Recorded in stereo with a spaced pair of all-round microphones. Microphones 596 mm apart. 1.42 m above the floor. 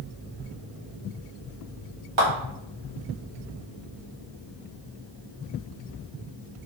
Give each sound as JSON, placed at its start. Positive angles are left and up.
{"t": 2.2, "sound": "a clap", "side_deg": -50, "distance_m": 1.3}